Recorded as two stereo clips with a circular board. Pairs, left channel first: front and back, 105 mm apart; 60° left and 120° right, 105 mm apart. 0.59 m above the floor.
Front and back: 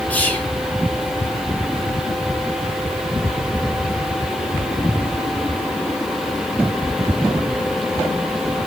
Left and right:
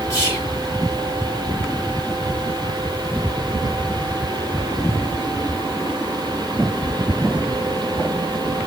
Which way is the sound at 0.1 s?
60° left.